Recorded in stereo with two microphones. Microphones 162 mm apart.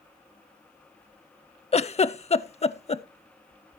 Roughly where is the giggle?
Left.